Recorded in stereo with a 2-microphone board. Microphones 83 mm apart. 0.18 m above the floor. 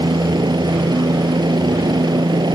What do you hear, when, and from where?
0.0 s a helicopter: 60° right (ahead or behind)